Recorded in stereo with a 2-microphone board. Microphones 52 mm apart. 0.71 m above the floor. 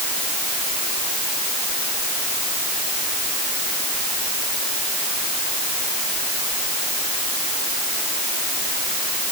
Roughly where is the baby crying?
I don't hear a baby crying.